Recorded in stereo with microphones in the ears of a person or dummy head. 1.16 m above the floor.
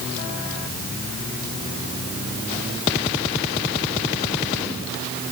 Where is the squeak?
No squeak in this recording.